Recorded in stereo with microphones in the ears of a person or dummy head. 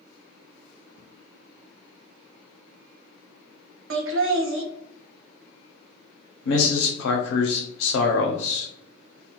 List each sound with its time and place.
3.9 s laughter: 70° right (ahead or behind), 0.6 m
6.5 s a man speaking: 70° left (ahead or behind), 0.6 m